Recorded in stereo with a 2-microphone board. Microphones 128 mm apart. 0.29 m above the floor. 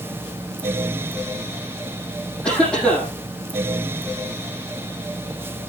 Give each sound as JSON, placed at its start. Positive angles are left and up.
{"t": 2.4, "sound": "a cough", "side_deg": 5, "distance_m": 9.5}